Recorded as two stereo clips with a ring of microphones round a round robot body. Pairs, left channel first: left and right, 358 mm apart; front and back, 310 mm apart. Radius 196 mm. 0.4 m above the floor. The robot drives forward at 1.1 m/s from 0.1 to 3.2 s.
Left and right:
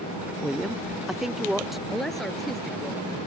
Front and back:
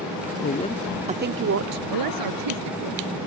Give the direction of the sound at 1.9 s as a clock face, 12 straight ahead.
6 o'clock.